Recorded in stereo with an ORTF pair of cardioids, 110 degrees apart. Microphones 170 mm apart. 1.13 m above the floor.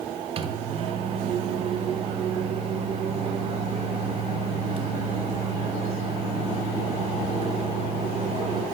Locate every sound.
0.4 s a microwave: 35° right, 0.6 m